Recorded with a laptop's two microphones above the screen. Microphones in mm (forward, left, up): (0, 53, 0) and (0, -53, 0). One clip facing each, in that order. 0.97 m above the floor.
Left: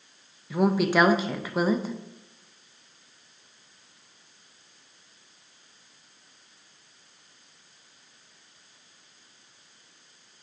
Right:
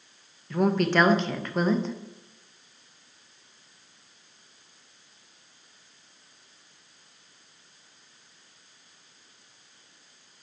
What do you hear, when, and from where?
0.5 s a woman speaking: 5° left (ahead or behind), 0.5 m